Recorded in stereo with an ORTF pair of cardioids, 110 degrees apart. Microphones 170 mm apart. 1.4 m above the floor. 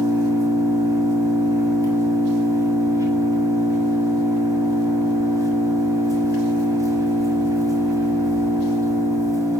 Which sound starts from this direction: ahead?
An engine running, at 0.0 s.